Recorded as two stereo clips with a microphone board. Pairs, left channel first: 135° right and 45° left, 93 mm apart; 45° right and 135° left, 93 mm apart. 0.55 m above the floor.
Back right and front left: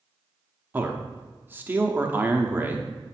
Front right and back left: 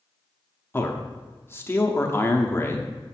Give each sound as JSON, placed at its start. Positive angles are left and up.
{"t": 0.7, "sound": "a man speaking", "azimuth_deg": -5, "distance_m": 0.7}